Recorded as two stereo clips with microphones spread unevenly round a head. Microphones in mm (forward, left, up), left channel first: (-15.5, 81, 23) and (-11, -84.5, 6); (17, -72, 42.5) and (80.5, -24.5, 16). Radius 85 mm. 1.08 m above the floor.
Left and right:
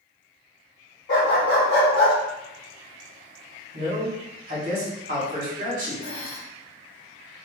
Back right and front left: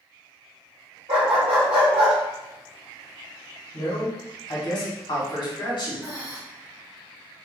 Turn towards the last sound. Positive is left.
turn(degrees=140)